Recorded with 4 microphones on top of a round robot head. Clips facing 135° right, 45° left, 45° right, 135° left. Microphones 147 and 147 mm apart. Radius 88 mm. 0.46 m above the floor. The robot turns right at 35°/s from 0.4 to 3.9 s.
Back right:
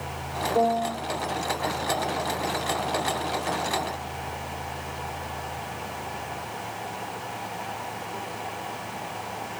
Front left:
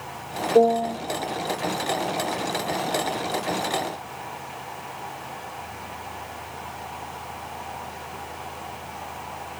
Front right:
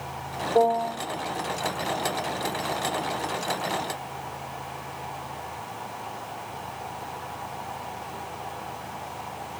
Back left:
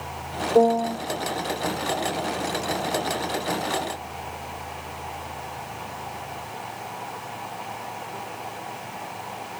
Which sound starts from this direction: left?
A piano, at 0.6 s.